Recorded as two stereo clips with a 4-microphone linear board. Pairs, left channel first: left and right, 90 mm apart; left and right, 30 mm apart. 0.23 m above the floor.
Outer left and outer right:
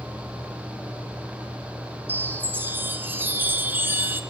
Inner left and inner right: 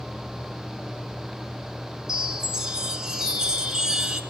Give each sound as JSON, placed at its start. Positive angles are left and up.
{"t": 2.1, "sound": "a chime", "side_deg": -20, "distance_m": 1.6}